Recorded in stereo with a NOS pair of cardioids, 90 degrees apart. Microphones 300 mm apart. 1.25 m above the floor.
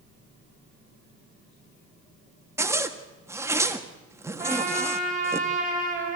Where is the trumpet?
25° right, 6 m.